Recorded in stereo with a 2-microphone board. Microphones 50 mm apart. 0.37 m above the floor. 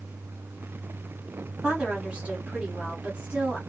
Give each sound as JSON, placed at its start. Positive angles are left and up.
{"t": 1.6, "sound": "a woman speaking", "side_deg": -25, "distance_m": 1.4}